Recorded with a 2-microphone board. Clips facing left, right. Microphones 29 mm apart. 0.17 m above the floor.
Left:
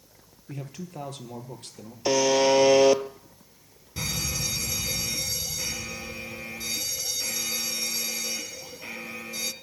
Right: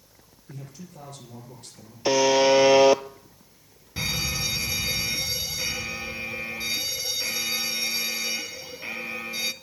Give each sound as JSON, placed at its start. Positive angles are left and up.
{"t": 0.5, "sound": "a man speaking", "side_deg": 70, "distance_m": 4.0}
{"t": 2.0, "sound": "a buzzer", "side_deg": -20, "distance_m": 0.8}
{"t": 4.0, "sound": "an alarm", "side_deg": -25, "distance_m": 1.0}